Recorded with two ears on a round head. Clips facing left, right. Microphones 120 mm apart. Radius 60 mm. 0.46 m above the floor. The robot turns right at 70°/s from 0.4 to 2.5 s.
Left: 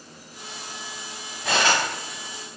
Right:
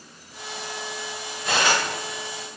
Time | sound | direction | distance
1.4 | cutlery clinking | 80° left | 1.8 m